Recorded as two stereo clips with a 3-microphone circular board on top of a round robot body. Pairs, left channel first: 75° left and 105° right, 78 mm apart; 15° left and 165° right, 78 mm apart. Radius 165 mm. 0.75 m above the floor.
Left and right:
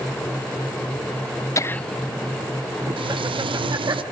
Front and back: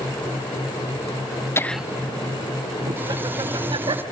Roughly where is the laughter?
Ahead left.